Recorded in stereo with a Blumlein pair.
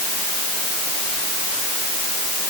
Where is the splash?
No splash in this recording.